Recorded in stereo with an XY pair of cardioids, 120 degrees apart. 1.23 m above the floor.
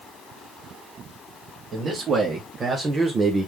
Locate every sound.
1.7 s a man speaking: 45° right, 2.5 m; by 3.5 s 20° right, 1.1 m